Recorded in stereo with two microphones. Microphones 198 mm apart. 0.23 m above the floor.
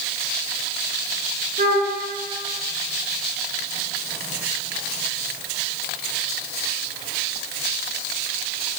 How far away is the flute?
About 1.2 m.